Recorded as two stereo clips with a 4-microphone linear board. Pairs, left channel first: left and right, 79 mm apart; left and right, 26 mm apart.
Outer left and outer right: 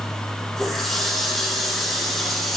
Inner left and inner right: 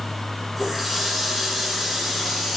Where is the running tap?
5° left (ahead or behind), 3.5 m.